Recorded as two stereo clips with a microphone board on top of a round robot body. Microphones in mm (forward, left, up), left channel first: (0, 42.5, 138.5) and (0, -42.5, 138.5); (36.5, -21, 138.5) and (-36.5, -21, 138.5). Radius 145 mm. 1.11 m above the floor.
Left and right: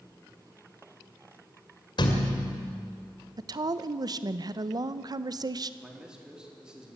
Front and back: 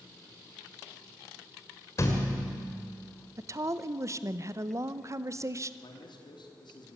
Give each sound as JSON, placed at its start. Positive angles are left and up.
{"t": 2.0, "sound": "a thud", "azimuth_deg": 55, "distance_m": 2.0}
{"t": 3.4, "sound": "a woman speaking", "azimuth_deg": -130, "distance_m": 0.9}
{"t": 5.8, "sound": "a man speaking", "azimuth_deg": -10, "distance_m": 3.5}